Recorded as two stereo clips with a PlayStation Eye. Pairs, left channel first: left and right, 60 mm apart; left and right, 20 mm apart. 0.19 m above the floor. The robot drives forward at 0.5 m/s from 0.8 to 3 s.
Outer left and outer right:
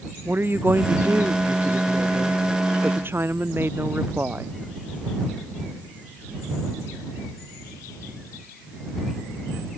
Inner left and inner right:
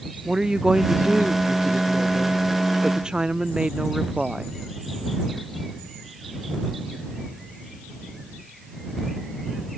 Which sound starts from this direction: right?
A woman speaking, at 0.2 s.